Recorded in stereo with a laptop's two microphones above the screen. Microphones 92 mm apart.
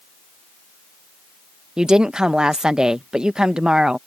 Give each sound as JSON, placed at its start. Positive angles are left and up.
{"t": 1.8, "sound": "a woman speaking", "side_deg": -10}